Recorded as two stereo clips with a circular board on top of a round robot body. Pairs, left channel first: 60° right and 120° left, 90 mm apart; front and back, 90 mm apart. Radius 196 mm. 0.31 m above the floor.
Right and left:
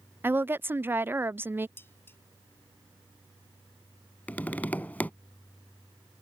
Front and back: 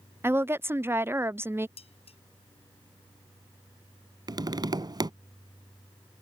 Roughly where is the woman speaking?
Behind left.